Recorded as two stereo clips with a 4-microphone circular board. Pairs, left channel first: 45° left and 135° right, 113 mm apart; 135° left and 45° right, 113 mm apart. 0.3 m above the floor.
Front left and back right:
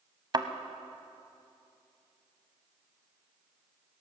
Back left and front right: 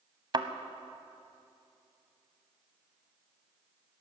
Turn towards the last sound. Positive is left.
turn(degrees=-90)